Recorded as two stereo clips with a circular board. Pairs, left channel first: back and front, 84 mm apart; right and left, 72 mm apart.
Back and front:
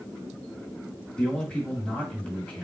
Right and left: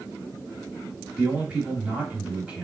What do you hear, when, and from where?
1.2 s a man speaking: 125° left, 1.7 m